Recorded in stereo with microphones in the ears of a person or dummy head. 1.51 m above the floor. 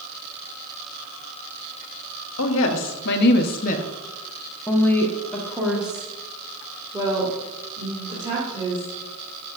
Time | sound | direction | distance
2.4 | a woman speaking | 80° left | 1.4 m